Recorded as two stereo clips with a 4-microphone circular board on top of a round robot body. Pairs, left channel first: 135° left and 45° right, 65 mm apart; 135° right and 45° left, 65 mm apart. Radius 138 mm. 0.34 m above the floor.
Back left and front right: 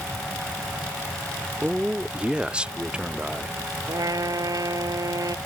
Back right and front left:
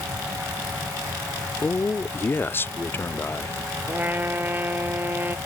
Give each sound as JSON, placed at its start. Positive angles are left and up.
{"t": 1.6, "sound": "a man speaking", "azimuth_deg": -110}
{"t": 3.9, "sound": "a trumpet", "azimuth_deg": -15}